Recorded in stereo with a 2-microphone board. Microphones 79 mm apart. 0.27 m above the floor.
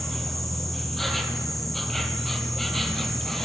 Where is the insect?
5° left (ahead or behind), 0.8 m.